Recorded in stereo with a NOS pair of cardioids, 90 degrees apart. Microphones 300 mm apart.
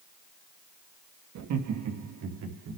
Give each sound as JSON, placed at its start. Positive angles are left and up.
{"t": 1.4, "sound": "laughter", "azimuth_deg": -65, "distance_m": 2.5}